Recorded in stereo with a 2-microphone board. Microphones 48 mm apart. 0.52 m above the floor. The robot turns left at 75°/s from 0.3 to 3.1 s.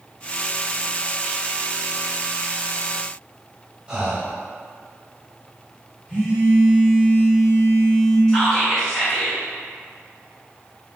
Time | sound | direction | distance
3.9 | breathing | 20° right (ahead or behind) | 0.8 m
6.1 | a phone buzzing | 20° left (ahead or behind) | 1.1 m
8.3 | whispering | 10° left (ahead or behind) | 1.5 m